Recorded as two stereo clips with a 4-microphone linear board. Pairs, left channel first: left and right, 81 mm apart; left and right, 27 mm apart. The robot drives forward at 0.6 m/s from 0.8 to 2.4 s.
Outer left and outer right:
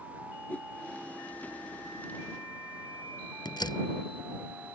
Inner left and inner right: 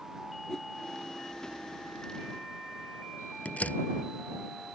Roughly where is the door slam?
Left.